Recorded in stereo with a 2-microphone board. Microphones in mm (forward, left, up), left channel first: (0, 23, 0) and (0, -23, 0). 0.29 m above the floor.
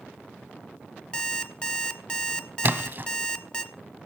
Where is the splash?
50° right (ahead or behind), 0.7 m.